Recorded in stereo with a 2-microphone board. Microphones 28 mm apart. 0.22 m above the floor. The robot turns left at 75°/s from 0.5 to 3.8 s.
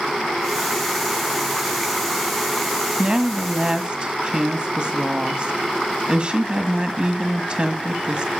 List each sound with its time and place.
3.0 s a woman speaking: 45° right, 1.6 m; by 8.3 s 105° right, 1.6 m